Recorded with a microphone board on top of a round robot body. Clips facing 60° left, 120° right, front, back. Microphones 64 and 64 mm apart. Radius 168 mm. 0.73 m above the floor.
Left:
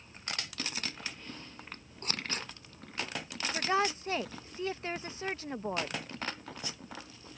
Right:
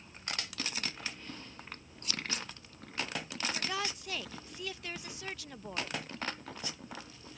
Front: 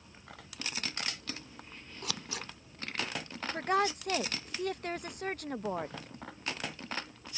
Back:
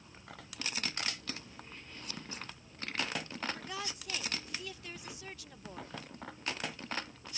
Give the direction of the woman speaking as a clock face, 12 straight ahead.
12 o'clock.